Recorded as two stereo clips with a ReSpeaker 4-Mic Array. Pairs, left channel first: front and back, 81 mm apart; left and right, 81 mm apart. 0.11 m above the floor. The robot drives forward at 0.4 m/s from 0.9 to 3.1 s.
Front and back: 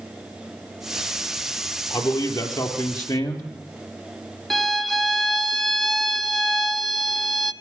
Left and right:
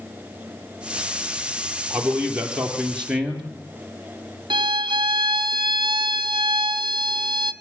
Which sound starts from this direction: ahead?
A man speaking, at 1.9 s.